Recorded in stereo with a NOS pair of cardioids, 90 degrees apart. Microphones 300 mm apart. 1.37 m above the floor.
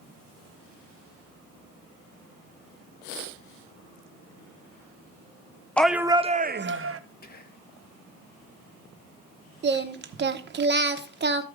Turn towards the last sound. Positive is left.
turn(degrees=-35)